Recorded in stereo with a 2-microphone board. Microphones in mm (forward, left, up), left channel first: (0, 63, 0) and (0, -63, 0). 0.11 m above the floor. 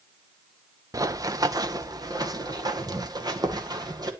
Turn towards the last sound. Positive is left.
turn(degrees=-30)  # may be behind; listen again after turning